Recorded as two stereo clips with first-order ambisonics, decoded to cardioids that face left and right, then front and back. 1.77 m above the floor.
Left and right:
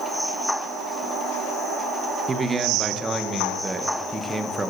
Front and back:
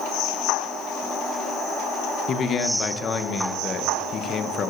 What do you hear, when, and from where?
2.3 s a man speaking: 30° right, 0.8 m